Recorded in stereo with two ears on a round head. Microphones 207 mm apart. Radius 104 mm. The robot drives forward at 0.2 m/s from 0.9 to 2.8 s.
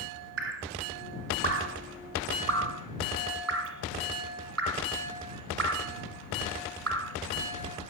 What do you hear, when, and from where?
0.4 s dripping: 55° right (ahead or behind), 1.0 m; by 7.2 s 65° right (ahead or behind), 0.9 m